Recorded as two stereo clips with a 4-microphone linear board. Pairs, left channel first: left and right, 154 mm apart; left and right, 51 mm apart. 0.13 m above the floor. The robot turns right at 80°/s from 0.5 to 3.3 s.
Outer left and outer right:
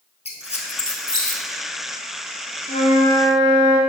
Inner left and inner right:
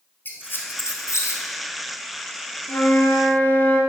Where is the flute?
95° left, 1.1 m; by 3.8 s 145° left, 1.1 m.